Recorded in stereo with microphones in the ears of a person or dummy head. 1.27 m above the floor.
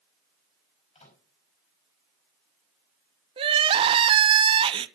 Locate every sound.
0.9 s a microwave: 25° left (ahead or behind), 5 m
3.4 s crying: 20° right (ahead or behind), 0.6 m